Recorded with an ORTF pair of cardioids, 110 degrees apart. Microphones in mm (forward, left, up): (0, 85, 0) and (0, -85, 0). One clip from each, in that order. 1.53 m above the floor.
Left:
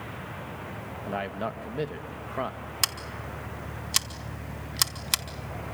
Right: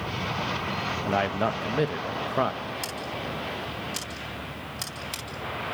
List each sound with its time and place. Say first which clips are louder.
1.1 s a man speaking: right 5 dB; 30° right, 1.5 m
2.8 s scissors: left 1 dB; 60° left, 2 m